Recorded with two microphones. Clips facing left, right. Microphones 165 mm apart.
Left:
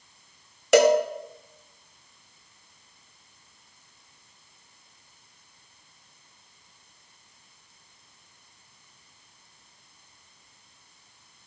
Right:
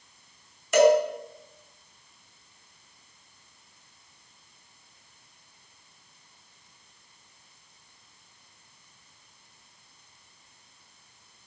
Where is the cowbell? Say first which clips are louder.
Left 1 dB; 80° left, 1.2 m.